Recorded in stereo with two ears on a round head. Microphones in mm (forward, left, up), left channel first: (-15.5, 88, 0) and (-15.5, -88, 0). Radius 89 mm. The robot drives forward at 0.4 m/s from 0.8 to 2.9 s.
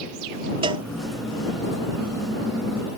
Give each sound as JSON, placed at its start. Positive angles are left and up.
{"t": 0.6, "sound": "a cowbell", "side_deg": -25}